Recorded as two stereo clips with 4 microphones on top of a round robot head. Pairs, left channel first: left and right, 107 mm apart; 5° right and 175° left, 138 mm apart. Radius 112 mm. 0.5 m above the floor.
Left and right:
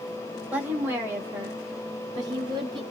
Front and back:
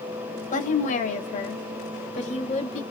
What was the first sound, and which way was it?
A woman speaking, 10° right.